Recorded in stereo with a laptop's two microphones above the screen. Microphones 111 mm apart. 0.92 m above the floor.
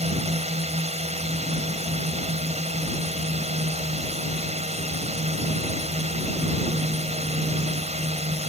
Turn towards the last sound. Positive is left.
turn(degrees=-75)  # may be behind; listen again after turning